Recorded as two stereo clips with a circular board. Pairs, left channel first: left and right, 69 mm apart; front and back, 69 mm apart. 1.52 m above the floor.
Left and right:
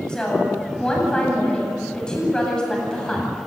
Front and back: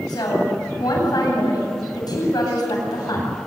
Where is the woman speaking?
10° left, 8.5 m.